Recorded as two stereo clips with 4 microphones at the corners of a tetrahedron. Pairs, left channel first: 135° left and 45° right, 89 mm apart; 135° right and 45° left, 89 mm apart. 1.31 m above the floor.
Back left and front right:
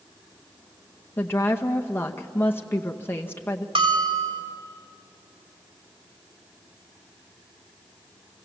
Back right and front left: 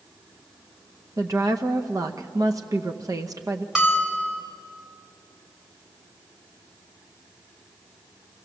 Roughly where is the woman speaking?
Left.